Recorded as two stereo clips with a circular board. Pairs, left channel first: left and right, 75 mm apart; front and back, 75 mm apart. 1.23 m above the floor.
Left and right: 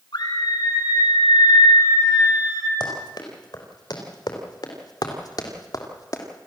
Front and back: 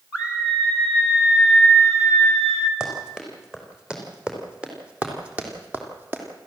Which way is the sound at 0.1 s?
105° left.